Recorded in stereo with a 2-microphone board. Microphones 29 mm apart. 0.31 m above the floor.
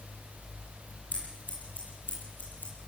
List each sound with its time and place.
1.1 s scissors: 75° left (ahead or behind), 10 m